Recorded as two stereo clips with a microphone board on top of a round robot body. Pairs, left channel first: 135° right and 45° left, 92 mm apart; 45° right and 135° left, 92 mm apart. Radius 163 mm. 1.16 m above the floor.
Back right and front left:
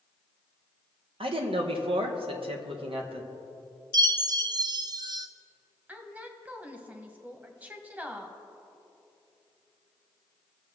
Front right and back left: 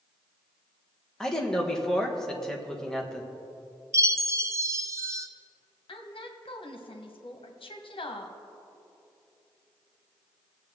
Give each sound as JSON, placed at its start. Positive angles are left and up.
{"t": 1.2, "sound": "a man speaking", "azimuth_deg": 40, "distance_m": 1.6}
{"t": 3.9, "sound": "a chime", "azimuth_deg": 80, "distance_m": 0.9}
{"t": 5.9, "sound": "a woman speaking", "azimuth_deg": -25, "distance_m": 1.4}